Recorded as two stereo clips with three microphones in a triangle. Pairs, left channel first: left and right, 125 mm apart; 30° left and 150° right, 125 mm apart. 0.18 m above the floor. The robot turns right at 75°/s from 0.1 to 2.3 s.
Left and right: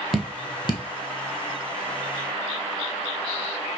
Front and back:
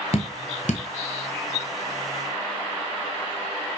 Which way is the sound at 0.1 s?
Straight ahead.